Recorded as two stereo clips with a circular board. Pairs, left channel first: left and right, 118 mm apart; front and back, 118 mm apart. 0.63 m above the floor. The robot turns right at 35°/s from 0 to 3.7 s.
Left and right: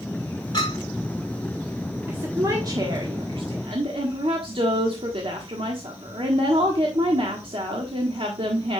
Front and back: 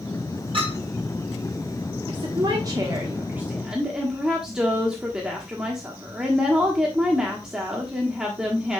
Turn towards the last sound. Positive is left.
turn(degrees=-100)